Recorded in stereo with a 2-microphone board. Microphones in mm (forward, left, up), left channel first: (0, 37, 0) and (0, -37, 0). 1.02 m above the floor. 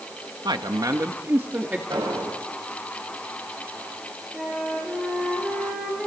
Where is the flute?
5° right (ahead or behind), 5.5 m.